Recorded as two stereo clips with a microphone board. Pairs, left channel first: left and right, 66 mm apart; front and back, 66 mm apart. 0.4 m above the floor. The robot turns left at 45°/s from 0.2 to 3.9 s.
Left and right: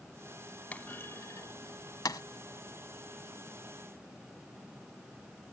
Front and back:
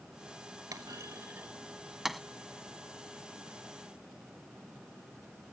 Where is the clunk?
155° left; by 2.2 s 90° left.